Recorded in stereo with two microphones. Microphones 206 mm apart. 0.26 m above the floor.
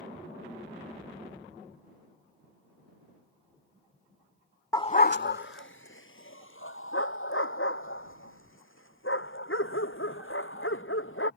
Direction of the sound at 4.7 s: 15° left (ahead or behind).